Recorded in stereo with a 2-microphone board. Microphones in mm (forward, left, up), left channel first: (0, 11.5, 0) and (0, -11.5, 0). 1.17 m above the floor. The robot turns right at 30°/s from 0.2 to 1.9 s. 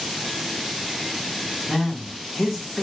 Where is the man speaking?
15° left (ahead or behind), 1.1 m; by 2.8 s 10° left (ahead or behind), 1.1 m.